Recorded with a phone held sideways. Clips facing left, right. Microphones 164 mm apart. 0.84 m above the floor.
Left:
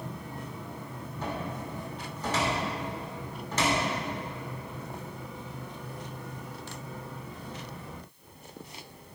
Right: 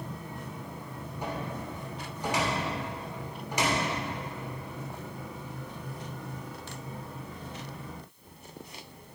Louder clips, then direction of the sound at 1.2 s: Left 1 dB; 15° right (ahead or behind).